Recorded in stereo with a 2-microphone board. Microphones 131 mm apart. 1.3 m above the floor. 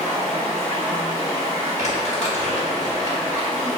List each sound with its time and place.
0.0 s running water: 10° left (ahead or behind), 1.5 m
1.8 s crumpling: 60° left (ahead or behind), 1.3 m